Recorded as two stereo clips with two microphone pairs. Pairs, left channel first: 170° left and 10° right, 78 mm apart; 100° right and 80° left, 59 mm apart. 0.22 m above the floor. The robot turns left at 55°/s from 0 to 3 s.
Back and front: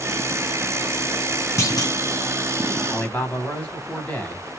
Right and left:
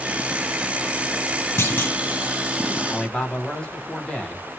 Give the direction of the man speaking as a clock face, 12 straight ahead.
5 o'clock.